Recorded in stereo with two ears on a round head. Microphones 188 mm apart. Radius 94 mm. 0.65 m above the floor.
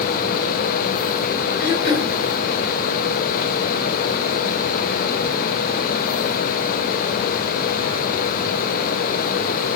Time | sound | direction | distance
1.6 | throat clearing | 50° left (ahead or behind) | 4 m